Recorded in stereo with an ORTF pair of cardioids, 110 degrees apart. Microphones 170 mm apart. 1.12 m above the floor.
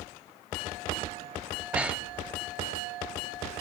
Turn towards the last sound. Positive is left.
turn(degrees=-10)